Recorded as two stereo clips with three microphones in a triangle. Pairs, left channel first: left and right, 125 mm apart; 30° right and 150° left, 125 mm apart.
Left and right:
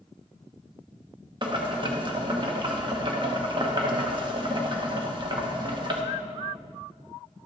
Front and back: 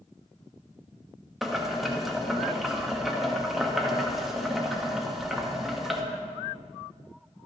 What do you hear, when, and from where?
1.4 s boiling: 120° right, 1.0 m